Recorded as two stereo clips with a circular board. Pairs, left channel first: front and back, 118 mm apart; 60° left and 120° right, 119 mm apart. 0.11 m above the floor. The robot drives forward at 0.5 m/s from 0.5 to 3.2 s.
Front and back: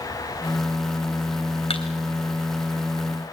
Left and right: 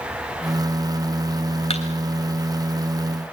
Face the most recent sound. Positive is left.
turn(degrees=50)